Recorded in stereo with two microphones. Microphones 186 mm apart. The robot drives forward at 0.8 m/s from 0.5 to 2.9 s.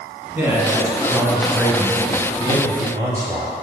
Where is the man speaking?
10° right (ahead or behind), 2 m; by 3.5 s 20° right (ahead or behind), 1.1 m.